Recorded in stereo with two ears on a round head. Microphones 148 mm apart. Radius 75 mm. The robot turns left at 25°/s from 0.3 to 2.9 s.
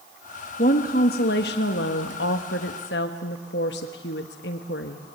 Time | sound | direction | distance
0.6 | a woman speaking | 125° left | 1.2 m